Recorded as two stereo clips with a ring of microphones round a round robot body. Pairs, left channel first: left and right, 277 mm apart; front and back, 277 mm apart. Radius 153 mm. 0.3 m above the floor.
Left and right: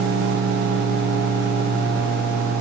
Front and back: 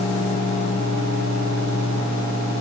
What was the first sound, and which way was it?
Only background noise.